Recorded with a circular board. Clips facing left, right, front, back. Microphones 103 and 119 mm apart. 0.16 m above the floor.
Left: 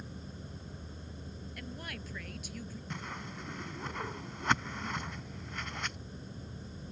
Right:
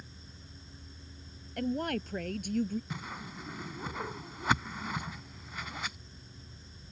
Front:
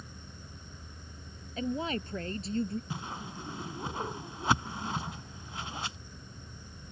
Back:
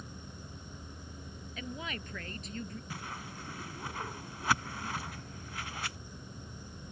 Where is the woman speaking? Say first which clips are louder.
Right 15 dB, front 9 dB; 55° right.